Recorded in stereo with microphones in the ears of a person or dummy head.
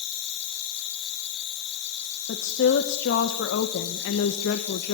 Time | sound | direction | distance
0.0 | an insect | 60° left (ahead or behind) | 6.5 m
2.3 | a woman speaking | 65° left (ahead or behind) | 2 m